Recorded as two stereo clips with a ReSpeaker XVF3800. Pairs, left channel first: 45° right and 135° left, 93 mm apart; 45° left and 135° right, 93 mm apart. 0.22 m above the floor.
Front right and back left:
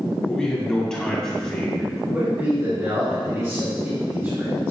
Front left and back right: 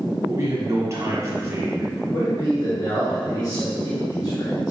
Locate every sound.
0.3 s a man speaking: 120° right, 1.1 m
2.1 s a man speaking: 80° left, 1.8 m